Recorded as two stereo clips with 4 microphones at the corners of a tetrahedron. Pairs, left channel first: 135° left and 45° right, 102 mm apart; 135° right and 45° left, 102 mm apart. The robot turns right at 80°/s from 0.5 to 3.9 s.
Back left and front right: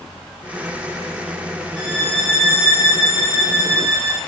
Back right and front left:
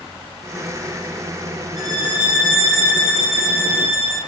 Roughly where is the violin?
Left.